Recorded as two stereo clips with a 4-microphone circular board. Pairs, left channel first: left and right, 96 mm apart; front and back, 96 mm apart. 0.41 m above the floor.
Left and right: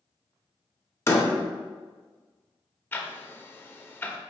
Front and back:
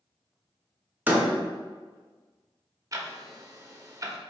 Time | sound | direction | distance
1.1 | a door slam | 125° left | 0.8 m
2.9 | ticking | 145° left | 0.5 m